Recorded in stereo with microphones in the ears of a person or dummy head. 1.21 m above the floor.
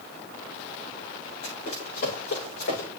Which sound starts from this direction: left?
Running footsteps, at 1.4 s.